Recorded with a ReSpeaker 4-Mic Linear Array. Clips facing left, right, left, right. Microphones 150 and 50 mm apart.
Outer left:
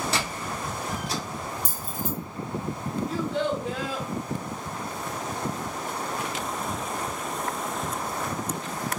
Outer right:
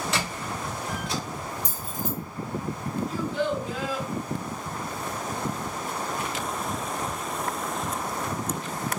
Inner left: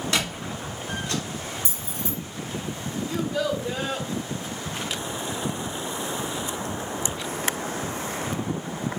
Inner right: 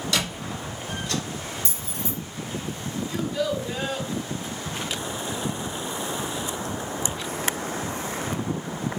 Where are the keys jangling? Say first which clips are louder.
Even, even; 15° left (ahead or behind), 1.5 m.